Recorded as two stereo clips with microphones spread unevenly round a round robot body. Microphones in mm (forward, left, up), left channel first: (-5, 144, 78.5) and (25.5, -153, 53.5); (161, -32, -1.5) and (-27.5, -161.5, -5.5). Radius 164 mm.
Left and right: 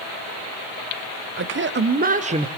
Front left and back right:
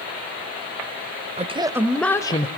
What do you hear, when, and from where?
1.4 s a man speaking: 100° right, 1.4 m; by 2.5 s 25° right, 1.4 m